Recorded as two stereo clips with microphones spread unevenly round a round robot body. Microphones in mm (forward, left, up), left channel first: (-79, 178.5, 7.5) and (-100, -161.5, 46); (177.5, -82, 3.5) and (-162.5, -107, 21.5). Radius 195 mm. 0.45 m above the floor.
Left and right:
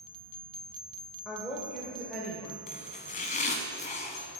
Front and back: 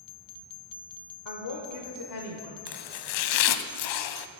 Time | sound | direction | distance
1.2 | a woman speaking | straight ahead | 1.3 m
2.7 | chopping | 15° left | 0.6 m